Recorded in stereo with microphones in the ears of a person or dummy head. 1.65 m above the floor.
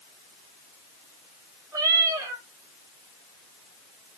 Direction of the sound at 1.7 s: 20° right (ahead or behind).